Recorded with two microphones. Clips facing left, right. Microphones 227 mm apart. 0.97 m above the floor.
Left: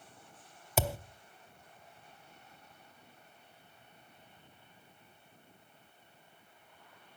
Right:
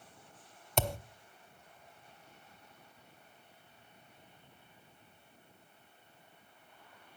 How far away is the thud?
About 0.6 m.